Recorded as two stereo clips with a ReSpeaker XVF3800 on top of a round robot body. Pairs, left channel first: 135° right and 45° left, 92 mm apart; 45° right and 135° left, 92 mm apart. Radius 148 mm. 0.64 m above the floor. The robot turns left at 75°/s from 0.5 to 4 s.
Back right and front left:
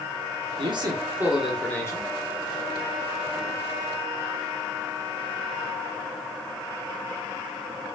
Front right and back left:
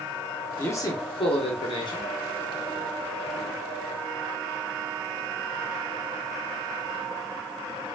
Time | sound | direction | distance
0.6 | a man speaking | 25° left | 1.5 m